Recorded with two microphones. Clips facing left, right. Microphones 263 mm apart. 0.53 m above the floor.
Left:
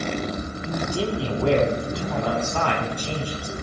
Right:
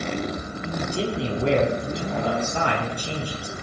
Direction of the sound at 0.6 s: 30° right (ahead or behind).